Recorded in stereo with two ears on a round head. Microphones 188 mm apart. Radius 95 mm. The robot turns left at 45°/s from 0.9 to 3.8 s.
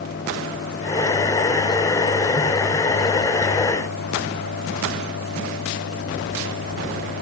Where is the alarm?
No alarm in this recording.